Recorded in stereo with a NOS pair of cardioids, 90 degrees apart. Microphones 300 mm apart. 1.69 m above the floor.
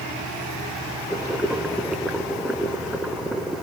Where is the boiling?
Straight ahead, 0.7 m.